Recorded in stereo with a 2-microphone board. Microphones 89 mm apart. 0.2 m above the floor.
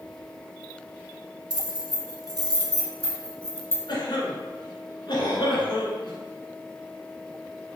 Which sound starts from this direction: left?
A cough, at 3.9 s.